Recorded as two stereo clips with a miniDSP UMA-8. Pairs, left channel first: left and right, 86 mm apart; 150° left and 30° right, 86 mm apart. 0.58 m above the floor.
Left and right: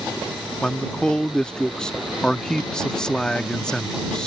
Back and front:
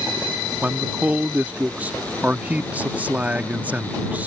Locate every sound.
0.6 s a man speaking: 15° left